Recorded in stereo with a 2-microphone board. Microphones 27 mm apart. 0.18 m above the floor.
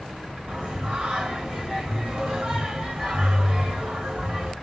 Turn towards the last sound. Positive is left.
turn(degrees=-45)  # may be behind; listen again after turning